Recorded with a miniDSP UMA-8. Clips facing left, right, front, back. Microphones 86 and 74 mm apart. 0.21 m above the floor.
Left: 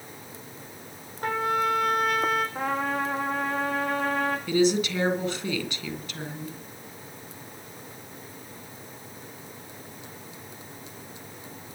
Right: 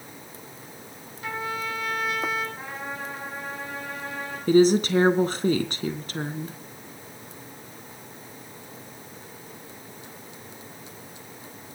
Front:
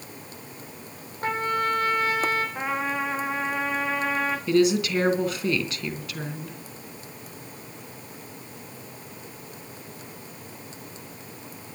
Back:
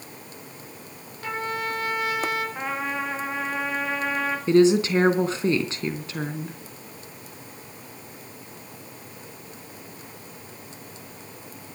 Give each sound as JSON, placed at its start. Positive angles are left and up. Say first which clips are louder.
{"t": 1.2, "sound": "a trumpet", "louder": "left 6 dB, front 4 dB", "azimuth_deg": 50, "distance_m": 5.5}
{"t": 2.5, "sound": "a trumpet", "louder": "left 8 dB, front 1 dB", "azimuth_deg": 85, "distance_m": 4.0}
{"t": 4.5, "sound": "a woman speaking", "louder": "right 7 dB, back 4 dB", "azimuth_deg": -125, "distance_m": 2.5}